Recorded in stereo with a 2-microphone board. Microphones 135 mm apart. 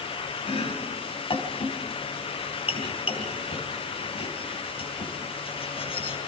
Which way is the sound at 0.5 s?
45° left (ahead or behind).